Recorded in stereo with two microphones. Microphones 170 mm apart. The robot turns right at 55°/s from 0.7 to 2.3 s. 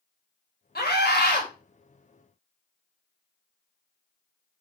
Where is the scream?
70° left, 3.5 m; by 1.5 s 110° left, 3.5 m.